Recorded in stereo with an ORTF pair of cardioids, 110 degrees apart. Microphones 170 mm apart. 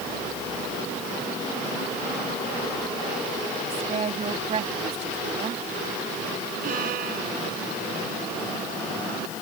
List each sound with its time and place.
3.7 s a woman speaking: 45° right
6.6 s a violin: 60° right